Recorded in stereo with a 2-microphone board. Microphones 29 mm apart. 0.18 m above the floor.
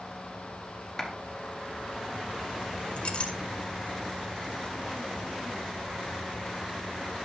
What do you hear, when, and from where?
1.0 s a clap: 5° left (ahead or behind), 1.9 m
3.0 s a clink: 45° left (ahead or behind), 1.1 m